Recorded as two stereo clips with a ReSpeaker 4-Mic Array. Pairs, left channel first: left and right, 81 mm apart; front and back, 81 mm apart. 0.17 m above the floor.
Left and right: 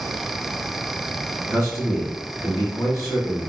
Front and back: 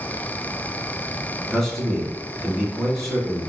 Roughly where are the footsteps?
I don't hear footsteps.